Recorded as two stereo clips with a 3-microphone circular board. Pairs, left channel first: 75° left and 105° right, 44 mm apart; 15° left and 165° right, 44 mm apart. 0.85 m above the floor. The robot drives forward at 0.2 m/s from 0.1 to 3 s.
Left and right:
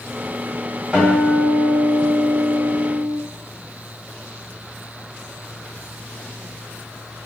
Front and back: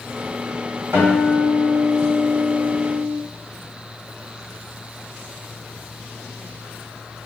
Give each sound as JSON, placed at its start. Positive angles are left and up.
{"t": 0.9, "sound": "a guitar", "azimuth_deg": -170, "distance_m": 1.9}